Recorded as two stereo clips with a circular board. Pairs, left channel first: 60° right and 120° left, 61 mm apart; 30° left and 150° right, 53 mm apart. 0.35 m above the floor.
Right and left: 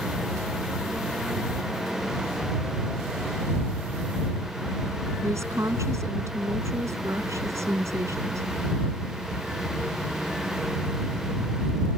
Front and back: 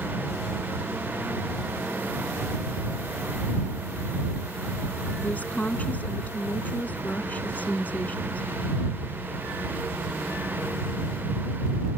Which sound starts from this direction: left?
A woman speaking, at 5.2 s.